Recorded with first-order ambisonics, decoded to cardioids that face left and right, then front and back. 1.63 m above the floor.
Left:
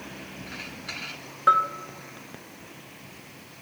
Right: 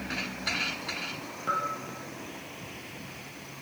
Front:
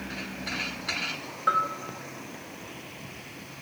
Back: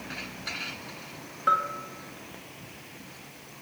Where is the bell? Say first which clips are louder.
Left 10 dB, even; 85° left, 1.0 m.